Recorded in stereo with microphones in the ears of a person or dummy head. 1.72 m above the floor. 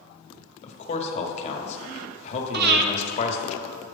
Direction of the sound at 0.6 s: 45° left (ahead or behind).